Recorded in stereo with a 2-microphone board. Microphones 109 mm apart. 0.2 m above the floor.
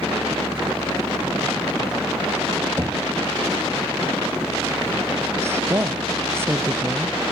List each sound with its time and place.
2.8 s knocking: 25° right (ahead or behind)
5.4 s a woman speaking: 25° right (ahead or behind)